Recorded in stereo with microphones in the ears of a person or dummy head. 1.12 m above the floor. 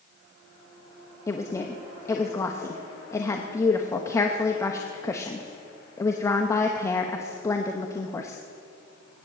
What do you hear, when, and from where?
1.3 s a woman speaking: 15° left (ahead or behind), 0.9 m